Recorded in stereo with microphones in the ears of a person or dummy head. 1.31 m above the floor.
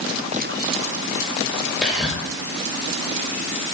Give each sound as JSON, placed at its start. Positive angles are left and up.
{"t": 1.8, "sound": "whispering", "side_deg": 0, "distance_m": 0.5}